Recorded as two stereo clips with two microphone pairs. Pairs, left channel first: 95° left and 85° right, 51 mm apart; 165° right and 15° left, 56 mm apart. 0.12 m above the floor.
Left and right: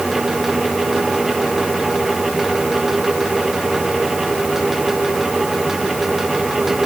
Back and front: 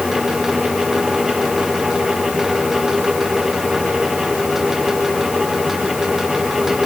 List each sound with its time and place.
Only background noise.